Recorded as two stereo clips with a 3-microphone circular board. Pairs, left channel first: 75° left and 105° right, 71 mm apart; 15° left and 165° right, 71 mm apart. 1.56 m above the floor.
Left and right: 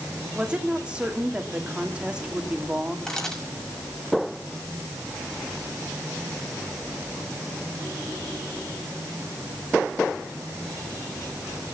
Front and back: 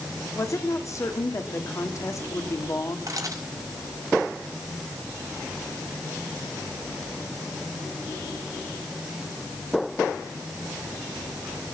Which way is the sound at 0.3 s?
30° right.